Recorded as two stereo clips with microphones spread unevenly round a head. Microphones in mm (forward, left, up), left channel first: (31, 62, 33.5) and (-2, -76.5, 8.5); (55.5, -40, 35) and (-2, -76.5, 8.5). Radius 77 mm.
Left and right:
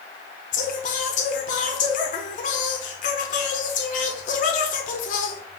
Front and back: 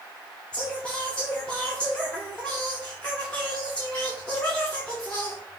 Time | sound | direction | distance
0.5 | singing | 105° left | 0.6 m